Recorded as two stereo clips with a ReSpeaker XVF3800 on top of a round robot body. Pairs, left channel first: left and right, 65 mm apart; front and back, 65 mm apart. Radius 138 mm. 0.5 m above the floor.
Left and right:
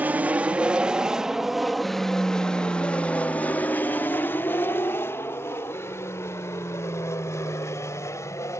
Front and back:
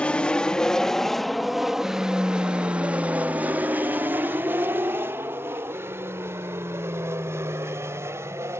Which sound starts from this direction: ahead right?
An aircraft, at 0.0 s.